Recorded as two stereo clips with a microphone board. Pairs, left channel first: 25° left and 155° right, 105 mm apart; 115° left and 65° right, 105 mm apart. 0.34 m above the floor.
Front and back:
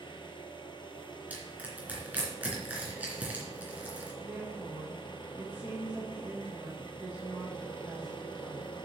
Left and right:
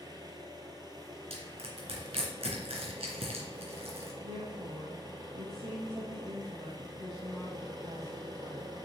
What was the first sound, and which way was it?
An engine running, 15° right.